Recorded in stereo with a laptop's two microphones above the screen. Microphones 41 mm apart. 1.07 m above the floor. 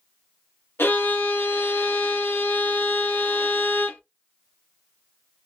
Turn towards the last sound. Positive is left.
turn(degrees=70)  # may be behind; listen again after turning